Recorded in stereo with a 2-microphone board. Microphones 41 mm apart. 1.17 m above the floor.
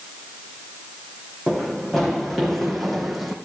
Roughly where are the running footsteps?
Centre.